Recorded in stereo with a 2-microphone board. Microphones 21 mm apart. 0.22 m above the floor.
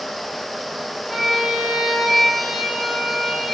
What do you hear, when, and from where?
1.1 s a violin: 5° right (ahead or behind), 7.5 m